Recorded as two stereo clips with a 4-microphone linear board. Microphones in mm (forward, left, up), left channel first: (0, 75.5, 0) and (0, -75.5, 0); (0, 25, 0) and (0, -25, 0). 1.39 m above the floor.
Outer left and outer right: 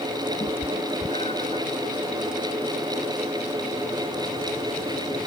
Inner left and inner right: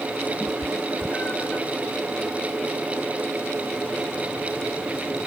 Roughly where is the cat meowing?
Left.